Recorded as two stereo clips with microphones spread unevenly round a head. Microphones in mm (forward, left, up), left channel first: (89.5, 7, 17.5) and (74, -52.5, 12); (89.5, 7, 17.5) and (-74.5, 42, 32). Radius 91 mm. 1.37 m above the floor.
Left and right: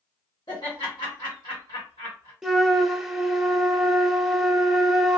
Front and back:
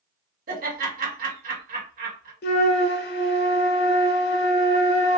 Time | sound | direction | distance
0.5 | laughter | 130° left | 1.7 m
2.4 | a flute | 20° right | 0.8 m